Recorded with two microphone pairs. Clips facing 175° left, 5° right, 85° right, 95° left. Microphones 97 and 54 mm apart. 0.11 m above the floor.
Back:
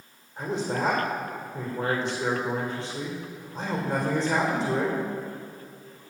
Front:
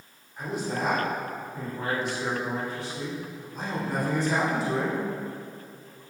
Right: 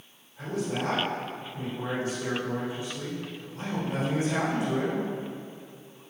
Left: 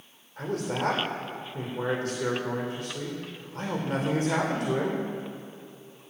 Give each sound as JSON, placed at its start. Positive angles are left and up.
{"t": 0.4, "sound": "a man speaking", "azimuth_deg": 115, "distance_m": 5.5}